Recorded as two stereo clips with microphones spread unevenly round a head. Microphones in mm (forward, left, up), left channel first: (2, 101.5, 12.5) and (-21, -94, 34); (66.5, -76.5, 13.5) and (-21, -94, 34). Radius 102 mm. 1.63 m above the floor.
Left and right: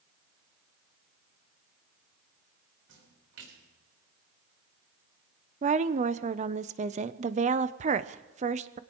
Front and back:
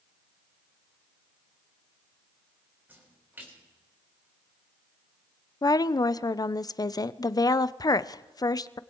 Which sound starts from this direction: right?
A splash, at 2.9 s.